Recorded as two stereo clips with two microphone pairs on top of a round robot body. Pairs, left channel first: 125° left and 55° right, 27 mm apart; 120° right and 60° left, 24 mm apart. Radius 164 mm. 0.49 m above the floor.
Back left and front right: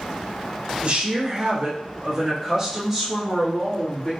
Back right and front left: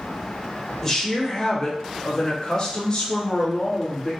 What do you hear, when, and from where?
0.8 s a woman speaking: 55° right, 1.4 m; by 4.1 s 170° right, 1.5 m